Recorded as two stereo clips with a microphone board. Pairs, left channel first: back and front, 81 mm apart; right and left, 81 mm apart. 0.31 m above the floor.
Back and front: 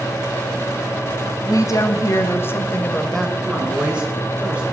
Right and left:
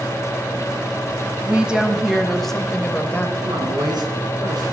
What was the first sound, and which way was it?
A woman speaking, 165° left.